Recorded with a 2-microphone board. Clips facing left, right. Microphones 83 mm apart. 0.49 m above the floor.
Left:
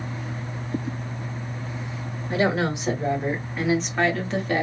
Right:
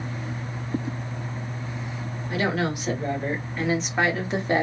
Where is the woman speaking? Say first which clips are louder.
Left 3 dB; 30° left (ahead or behind), 1.6 m; by 4.6 s 25° right (ahead or behind), 1.0 m.